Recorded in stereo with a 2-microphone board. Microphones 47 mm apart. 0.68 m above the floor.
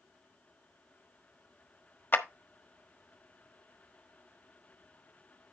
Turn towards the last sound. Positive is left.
turn(degrees=45)  # may be behind; listen again after turning